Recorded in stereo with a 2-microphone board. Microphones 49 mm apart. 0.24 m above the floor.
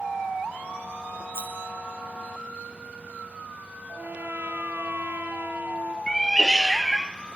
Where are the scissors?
65° right (ahead or behind), 5 m.